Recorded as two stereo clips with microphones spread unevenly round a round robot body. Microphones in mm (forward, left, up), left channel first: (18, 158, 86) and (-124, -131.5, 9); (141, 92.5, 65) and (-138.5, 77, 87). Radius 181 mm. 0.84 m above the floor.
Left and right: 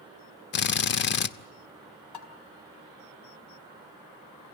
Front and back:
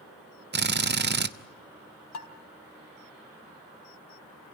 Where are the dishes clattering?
35° left, 3.5 m.